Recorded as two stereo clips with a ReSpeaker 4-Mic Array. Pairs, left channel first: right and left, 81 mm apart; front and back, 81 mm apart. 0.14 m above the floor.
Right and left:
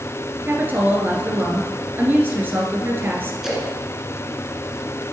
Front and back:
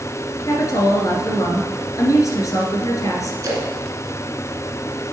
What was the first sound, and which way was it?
A woman speaking, 30° left.